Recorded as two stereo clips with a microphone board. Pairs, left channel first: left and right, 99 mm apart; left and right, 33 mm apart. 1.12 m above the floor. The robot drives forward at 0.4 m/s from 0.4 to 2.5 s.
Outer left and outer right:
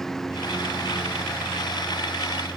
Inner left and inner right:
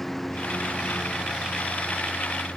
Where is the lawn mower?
5° left (ahead or behind).